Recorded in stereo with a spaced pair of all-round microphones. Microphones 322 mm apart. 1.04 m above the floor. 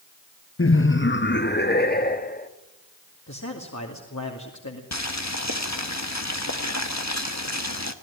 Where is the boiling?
55° left (ahead or behind), 1.5 m.